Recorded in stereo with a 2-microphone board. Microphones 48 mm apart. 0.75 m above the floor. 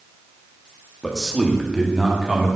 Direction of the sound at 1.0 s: 10° left (ahead or behind).